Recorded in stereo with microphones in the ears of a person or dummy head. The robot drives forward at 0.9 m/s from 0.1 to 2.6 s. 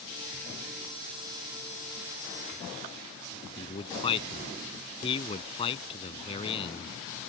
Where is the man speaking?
30° left (ahead or behind).